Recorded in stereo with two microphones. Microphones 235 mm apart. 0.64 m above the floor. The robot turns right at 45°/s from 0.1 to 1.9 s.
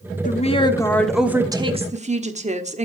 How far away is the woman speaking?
About 1.2 m.